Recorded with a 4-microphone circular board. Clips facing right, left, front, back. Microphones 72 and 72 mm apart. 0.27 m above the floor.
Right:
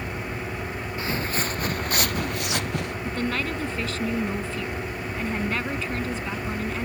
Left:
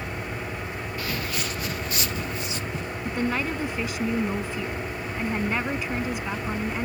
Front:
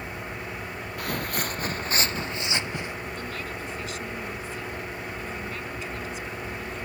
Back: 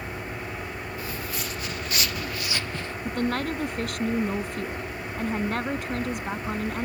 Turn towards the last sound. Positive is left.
turn(degrees=165)